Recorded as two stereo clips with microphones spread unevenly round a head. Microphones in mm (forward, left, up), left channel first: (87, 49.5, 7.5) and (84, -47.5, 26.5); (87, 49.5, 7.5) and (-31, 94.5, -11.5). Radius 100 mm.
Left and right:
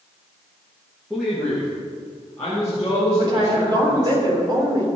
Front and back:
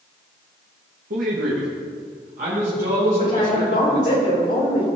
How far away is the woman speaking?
About 4 m.